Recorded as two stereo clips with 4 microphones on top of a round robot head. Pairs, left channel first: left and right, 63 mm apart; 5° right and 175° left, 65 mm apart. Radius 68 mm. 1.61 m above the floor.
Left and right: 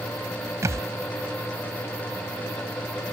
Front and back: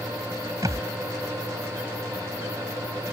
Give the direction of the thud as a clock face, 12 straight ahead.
4 o'clock.